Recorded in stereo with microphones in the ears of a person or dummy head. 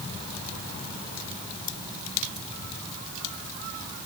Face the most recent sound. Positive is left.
No sound to turn to.